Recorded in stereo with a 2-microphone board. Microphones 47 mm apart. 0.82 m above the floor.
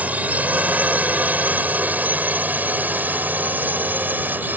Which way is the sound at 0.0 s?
35° right (ahead or behind).